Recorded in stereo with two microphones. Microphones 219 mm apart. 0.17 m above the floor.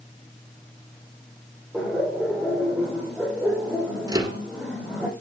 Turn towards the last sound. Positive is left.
turn(degrees=-20)  # may be behind; listen again after turning